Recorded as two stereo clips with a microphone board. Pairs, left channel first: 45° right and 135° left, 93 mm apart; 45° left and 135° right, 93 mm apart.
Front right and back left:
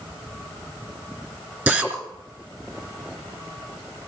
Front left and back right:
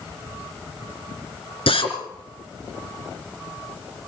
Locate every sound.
1.7 s a drill: 65° left, 4 m